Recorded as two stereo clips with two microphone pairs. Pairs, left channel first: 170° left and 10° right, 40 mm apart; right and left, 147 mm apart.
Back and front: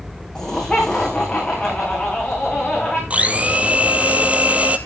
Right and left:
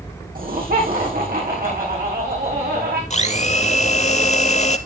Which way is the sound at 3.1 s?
60° right.